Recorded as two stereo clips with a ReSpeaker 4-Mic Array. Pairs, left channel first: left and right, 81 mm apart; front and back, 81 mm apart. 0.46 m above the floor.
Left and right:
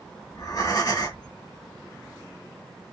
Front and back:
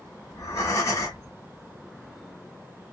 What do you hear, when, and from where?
0.3 s breathing: 50° left, 1.2 m